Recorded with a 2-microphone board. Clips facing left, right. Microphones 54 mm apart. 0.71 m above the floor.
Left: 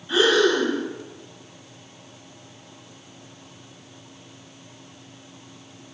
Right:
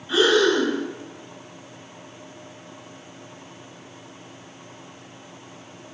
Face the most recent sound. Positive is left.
turn(degrees=-10)  # may be behind; listen again after turning